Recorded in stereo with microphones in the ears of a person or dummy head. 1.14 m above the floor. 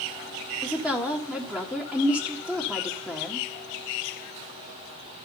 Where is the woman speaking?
5° left (ahead or behind), 1.4 m.